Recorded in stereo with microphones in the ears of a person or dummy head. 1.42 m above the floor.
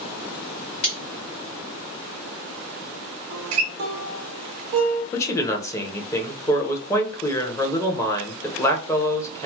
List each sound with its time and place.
0.8 s cutlery clinking: 45° left (ahead or behind), 0.7 m
3.3 s a guitar: 40° right (ahead or behind), 0.6 m
5.1 s a man speaking: 10° left (ahead or behind), 0.8 m